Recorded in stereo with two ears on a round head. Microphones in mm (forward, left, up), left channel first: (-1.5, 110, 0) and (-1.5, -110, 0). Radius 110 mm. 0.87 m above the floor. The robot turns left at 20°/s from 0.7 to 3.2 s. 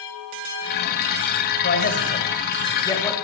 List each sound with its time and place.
1.6 s a man speaking: 40° left (ahead or behind), 5 m; by 3.1 s 10° left (ahead or behind), 5 m